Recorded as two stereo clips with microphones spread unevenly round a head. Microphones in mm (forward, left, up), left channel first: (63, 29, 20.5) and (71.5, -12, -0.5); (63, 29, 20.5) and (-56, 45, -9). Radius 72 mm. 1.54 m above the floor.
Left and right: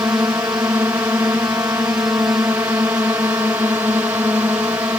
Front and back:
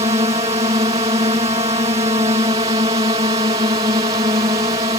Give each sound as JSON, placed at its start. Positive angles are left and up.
{"t": 0.0, "sound": "a drone", "azimuth_deg": -130}